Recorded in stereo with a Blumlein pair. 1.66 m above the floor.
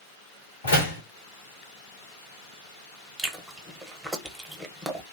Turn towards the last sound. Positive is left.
turn(degrees=-5)